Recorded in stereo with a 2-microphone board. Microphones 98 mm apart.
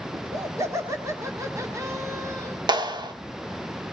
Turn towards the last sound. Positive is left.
turn(degrees=-50)  # may be behind; listen again after turning